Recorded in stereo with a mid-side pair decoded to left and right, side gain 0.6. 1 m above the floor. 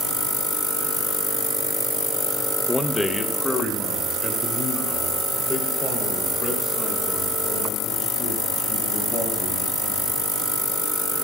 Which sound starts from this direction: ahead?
A man speaking, at 2.7 s.